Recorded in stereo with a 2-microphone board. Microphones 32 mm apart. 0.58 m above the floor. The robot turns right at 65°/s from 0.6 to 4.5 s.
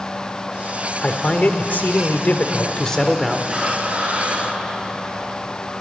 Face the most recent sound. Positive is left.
turn(degrees=-100)